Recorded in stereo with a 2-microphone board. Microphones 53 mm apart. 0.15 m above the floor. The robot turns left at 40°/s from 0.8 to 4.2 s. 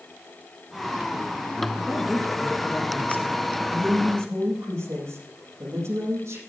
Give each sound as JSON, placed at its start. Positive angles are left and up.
{"t": 1.8, "sound": "a woman speaking", "azimuth_deg": -160, "distance_m": 3.0}
{"t": 3.7, "sound": "a woman speaking", "side_deg": -80, "distance_m": 7.0}